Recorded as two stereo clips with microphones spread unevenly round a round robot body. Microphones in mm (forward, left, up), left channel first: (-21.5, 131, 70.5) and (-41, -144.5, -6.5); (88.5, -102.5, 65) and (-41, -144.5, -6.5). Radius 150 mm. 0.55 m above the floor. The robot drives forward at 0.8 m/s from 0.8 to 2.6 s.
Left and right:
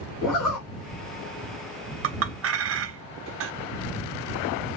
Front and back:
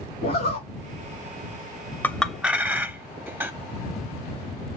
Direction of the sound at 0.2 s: 40° left.